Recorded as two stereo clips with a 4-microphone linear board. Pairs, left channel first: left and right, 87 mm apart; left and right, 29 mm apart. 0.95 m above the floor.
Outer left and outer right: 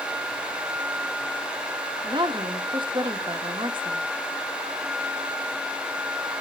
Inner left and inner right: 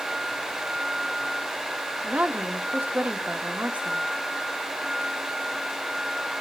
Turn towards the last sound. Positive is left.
turn(degrees=-65)  # may be behind; listen again after turning